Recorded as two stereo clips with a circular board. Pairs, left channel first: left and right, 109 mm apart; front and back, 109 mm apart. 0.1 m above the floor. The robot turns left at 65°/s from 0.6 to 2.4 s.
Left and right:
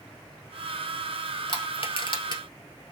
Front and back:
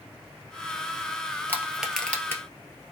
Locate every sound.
1.5 s crushing: 120° left, 1.7 m; by 2.4 s 60° left, 1.7 m